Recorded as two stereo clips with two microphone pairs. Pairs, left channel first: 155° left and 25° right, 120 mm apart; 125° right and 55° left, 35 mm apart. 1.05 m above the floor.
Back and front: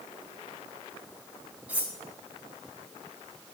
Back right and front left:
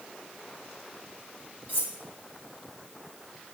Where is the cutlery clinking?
105° right, 1.2 m.